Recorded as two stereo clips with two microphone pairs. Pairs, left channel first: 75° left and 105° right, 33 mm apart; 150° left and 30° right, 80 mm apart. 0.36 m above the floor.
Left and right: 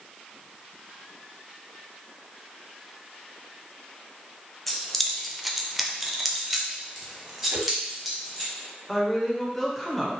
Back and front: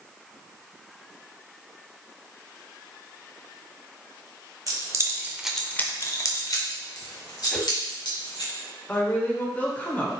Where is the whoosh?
125° right, 0.6 m.